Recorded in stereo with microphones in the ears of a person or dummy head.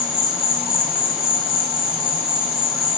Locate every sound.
0.0 s an insect: centre (ahead or behind), 6 m